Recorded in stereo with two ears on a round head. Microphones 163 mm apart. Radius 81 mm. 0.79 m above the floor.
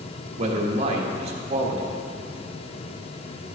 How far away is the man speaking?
About 1.4 m.